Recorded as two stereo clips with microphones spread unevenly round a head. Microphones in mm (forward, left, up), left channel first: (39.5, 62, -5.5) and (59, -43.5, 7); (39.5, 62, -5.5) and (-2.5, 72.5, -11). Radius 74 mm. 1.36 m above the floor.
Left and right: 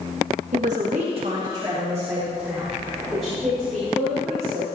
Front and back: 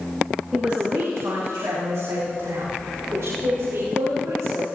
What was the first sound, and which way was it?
A man speaking, 110° right.